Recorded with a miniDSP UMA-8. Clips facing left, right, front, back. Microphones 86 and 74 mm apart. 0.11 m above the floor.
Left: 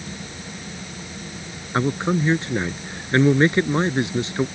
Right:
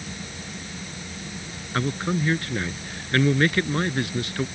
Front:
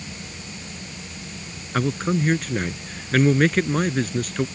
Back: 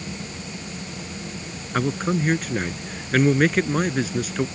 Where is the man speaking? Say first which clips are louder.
Left 4 dB, even; 100° left.